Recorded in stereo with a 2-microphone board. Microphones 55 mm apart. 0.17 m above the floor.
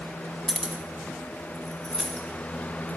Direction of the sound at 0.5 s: 15° right (ahead or behind).